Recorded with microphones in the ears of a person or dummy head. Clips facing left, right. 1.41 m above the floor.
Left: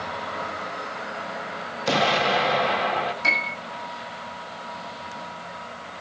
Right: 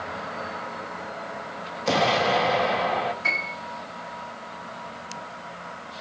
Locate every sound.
1.9 s an explosion: 5° right (ahead or behind), 2.5 m
3.2 s a piano: 55° left (ahead or behind), 7.5 m